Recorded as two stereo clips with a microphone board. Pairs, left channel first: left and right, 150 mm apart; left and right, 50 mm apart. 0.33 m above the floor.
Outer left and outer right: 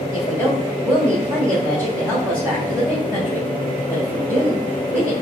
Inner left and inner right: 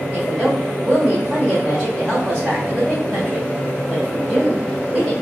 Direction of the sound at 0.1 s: 15° right (ahead or behind).